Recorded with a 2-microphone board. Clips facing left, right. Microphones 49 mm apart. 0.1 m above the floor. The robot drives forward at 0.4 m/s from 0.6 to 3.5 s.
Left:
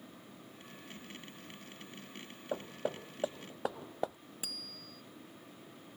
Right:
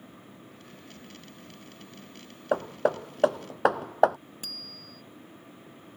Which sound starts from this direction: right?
Hammering, at 2.5 s.